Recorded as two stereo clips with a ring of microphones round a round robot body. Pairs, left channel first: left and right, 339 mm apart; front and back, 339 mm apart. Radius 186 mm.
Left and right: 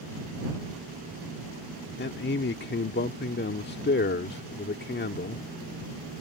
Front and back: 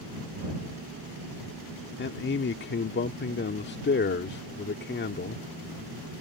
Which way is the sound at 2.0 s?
45° left.